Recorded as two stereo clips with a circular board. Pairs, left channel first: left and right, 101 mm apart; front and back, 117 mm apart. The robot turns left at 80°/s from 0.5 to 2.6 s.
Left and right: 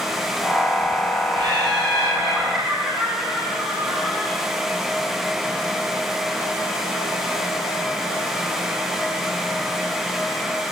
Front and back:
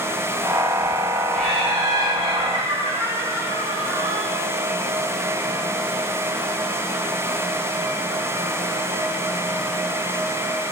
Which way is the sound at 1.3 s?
75° right.